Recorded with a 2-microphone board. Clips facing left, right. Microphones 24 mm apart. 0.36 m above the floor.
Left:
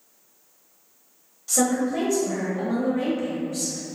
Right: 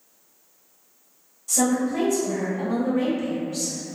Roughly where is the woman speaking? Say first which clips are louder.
Even; left.